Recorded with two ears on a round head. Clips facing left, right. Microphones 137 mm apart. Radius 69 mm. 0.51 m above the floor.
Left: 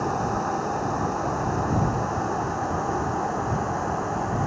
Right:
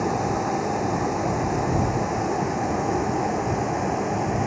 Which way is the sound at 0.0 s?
10° right (ahead or behind).